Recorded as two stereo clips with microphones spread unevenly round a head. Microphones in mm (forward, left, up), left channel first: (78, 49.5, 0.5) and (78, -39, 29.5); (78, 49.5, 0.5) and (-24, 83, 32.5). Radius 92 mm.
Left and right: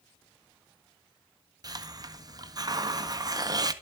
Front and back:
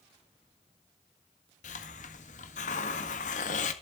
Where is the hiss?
50° right, 1.6 m.